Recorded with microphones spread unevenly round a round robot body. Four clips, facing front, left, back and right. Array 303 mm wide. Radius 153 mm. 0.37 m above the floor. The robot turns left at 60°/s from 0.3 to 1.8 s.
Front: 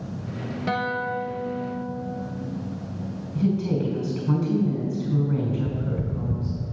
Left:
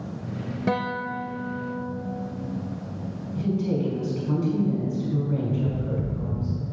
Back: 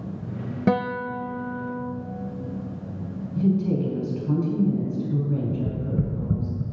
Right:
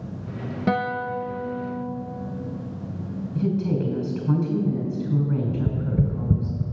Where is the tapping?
105° right, 0.8 m.